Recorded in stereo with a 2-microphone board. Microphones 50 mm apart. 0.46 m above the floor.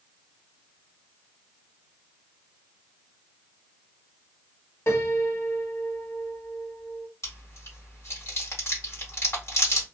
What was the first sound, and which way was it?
A piano, 60° left (ahead or behind).